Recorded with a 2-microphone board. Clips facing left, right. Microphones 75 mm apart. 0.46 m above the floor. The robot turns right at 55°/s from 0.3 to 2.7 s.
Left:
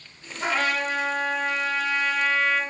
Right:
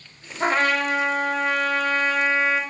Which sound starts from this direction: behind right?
A trumpet, at 0.4 s.